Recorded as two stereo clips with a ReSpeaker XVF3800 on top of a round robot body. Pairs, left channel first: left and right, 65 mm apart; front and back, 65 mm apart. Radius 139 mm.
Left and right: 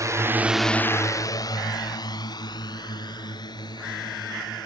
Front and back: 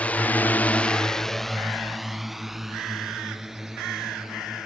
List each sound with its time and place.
0.0 s a drone: 65° right; by 4.7 s 95° left